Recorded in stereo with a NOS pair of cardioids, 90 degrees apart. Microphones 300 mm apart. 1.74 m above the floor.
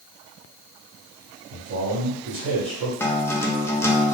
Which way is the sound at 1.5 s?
65° right.